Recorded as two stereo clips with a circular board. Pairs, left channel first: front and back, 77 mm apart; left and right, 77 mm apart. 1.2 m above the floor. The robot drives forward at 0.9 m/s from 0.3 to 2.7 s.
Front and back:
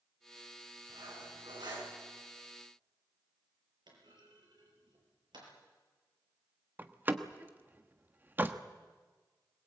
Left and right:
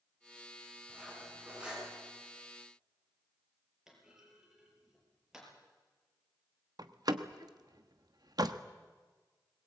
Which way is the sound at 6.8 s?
115° right.